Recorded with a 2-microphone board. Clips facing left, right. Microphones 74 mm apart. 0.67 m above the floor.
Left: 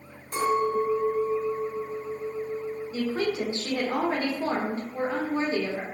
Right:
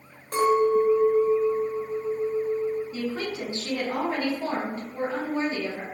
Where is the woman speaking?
30° left (ahead or behind), 1.1 m.